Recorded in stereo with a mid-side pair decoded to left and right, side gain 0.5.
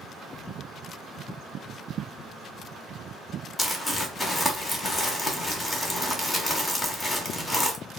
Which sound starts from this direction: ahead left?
Crumpling, at 3.6 s.